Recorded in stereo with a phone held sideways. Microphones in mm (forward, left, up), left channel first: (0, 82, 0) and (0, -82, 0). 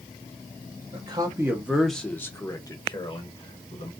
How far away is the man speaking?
About 0.8 m.